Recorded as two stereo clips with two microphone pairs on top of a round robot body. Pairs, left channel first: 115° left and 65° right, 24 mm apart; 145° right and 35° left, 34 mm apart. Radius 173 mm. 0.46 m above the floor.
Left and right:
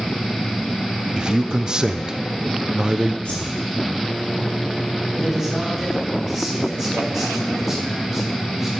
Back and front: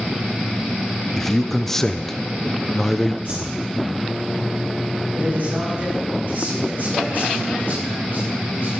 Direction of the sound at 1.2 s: 80° right.